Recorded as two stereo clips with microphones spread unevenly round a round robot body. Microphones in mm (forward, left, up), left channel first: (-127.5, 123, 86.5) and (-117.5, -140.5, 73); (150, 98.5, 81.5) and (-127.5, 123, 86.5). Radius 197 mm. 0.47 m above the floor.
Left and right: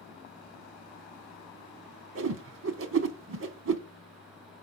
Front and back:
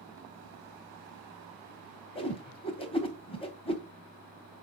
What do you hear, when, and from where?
2.1 s a whoosh: 70° right, 0.8 m